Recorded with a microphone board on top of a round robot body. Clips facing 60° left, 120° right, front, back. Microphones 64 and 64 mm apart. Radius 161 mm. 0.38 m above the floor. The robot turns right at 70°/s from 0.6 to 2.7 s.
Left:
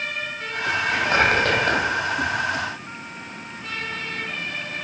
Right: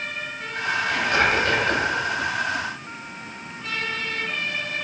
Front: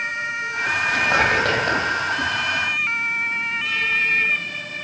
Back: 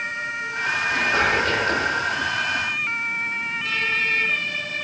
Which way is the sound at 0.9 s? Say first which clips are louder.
Left 2 dB, front 2 dB; 20° right.